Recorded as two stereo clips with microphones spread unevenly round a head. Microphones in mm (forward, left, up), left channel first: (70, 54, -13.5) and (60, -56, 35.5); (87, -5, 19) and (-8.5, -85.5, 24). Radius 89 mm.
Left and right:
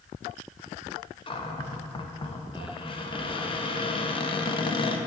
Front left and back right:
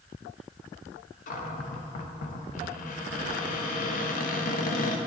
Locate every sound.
1.3 s a cupboard door: 30° left, 0.8 m